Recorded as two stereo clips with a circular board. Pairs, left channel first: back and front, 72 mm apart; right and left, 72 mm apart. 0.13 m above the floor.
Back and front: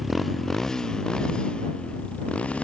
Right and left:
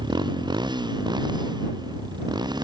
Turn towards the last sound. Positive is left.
turn(degrees=105)